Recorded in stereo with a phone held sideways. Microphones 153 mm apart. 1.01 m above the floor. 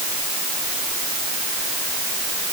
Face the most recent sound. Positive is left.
No sound to turn to.